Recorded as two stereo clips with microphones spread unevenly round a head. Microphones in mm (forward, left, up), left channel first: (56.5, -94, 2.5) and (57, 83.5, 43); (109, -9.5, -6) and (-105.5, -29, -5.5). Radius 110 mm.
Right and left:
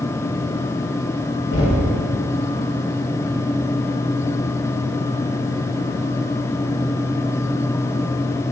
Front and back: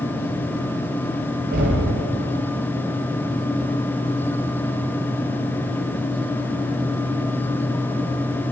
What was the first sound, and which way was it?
Knocking, 130° right.